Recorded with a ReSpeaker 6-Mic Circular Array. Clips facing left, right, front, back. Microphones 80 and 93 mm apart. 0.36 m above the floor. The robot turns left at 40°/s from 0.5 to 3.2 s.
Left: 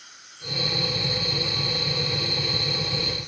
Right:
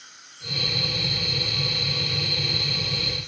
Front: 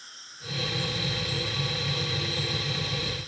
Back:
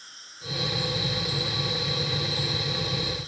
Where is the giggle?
I don't hear a giggle.